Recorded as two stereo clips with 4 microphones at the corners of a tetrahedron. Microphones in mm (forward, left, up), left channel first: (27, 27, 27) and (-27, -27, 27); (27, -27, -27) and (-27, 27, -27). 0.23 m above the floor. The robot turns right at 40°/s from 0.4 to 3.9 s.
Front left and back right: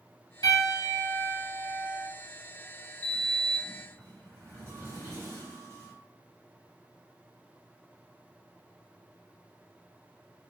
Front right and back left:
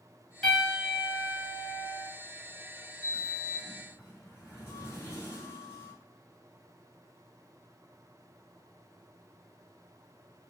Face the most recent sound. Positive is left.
turn(degrees=-95)